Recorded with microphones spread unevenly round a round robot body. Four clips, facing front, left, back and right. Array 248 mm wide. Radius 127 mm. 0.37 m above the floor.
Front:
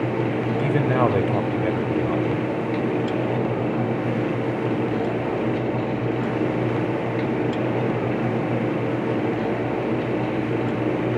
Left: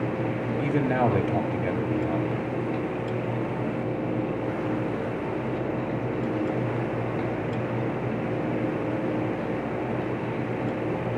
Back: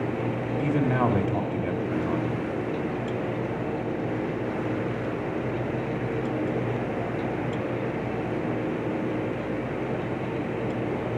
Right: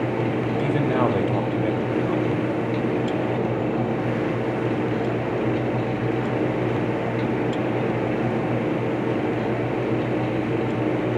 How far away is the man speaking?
About 1.6 m.